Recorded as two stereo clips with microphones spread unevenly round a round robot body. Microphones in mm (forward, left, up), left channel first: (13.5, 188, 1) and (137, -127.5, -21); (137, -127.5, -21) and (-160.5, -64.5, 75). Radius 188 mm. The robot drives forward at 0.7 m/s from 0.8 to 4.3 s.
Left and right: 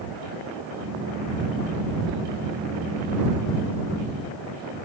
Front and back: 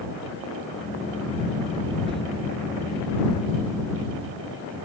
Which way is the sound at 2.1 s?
120° right.